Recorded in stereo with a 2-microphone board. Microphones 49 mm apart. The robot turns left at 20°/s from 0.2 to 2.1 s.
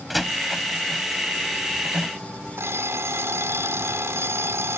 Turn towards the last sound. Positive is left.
turn(degrees=-70)  # may be behind; listen again after turning